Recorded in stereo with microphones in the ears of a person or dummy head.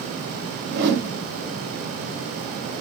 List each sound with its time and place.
0.7 s a whoosh: 55° right (ahead or behind), 1.0 m